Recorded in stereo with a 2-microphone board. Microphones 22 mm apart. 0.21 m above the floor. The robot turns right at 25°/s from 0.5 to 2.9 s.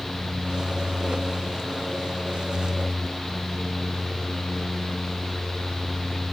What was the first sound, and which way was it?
Only background noise.